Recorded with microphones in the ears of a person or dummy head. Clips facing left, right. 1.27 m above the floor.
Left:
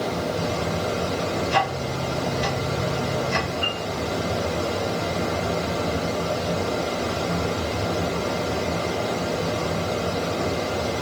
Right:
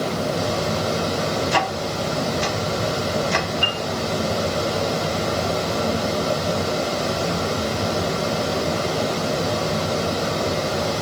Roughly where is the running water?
Right.